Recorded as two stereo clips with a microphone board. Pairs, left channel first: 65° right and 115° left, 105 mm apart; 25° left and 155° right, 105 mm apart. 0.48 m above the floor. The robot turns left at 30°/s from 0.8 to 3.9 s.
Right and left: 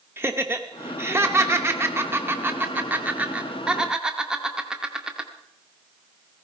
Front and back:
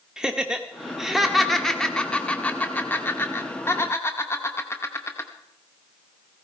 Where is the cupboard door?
No cupboard door in this recording.